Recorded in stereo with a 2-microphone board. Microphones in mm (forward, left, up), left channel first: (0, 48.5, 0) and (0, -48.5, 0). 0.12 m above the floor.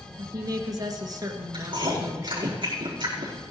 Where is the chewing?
50° right (ahead or behind), 5 m.